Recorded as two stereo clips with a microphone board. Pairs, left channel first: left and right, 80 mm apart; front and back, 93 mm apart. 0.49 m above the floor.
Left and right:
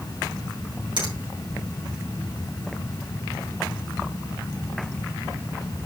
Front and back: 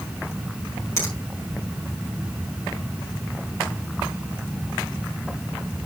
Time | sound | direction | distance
1.0 | a finger snap | 60° right | 5 m